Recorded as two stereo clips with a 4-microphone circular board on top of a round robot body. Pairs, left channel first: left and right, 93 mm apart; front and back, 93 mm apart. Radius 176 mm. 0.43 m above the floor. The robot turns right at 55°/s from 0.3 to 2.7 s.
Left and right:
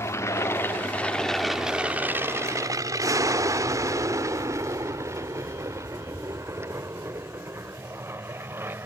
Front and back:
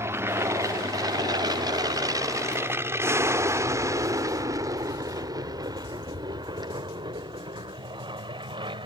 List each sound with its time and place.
0.0 s an aircraft: 130° left; by 8.9 s 155° right